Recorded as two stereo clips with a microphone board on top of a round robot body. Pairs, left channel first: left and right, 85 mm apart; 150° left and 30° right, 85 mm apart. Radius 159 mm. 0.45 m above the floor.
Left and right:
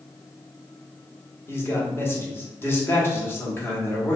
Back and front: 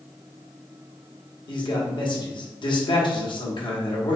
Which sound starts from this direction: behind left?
A man speaking, at 1.5 s.